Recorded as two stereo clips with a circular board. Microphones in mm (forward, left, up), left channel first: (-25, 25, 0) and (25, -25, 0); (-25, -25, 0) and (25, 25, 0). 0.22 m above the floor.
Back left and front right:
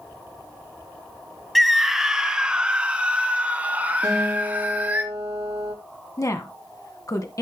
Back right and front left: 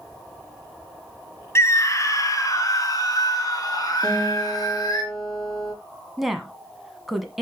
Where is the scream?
135° right, 1.2 m; by 5.0 s 110° right, 3.5 m.